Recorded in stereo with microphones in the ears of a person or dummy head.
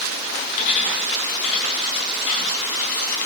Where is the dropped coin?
70° left (ahead or behind), 4.5 m.